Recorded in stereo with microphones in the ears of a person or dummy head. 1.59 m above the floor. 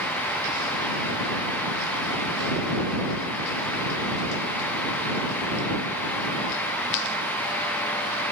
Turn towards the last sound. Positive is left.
No sound to turn to.